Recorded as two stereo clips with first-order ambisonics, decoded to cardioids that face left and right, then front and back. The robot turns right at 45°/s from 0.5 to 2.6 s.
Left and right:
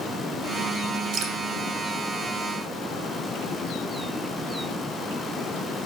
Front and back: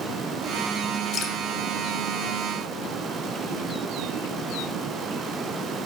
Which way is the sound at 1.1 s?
60° right.